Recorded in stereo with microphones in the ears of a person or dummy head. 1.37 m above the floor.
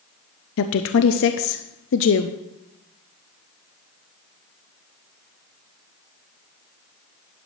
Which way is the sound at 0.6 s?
65° left (ahead or behind).